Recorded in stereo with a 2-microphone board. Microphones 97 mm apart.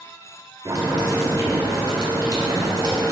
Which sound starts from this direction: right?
Boiling, at 0.7 s.